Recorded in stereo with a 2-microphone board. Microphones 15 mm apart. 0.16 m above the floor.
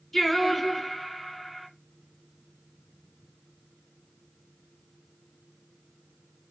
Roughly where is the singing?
Left.